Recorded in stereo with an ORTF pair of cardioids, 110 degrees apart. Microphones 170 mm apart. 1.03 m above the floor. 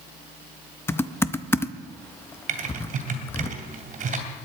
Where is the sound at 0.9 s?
15° left, 0.6 m.